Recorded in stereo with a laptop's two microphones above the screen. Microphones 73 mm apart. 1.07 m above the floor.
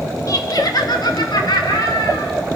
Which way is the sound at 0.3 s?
50° left (ahead or behind).